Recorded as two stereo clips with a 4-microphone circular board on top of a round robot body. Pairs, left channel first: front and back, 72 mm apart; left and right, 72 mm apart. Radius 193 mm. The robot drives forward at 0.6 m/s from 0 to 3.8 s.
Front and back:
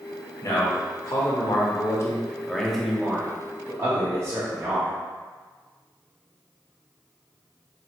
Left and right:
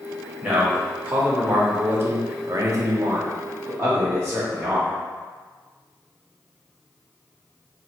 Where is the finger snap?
I don't hear a finger snap.